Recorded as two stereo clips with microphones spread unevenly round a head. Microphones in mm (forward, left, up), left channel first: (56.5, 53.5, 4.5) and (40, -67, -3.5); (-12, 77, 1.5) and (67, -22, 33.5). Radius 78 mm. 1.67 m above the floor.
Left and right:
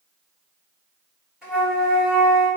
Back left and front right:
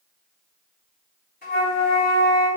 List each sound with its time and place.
1.4 s a flute: 175° left, 2 m